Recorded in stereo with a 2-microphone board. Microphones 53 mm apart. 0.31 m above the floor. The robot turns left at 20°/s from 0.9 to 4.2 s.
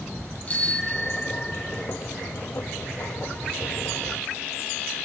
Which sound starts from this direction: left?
A bicycle bell, at 0.5 s.